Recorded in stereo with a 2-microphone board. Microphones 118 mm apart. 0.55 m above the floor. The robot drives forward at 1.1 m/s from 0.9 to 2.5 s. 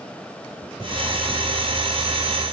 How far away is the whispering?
I don't hear whispering.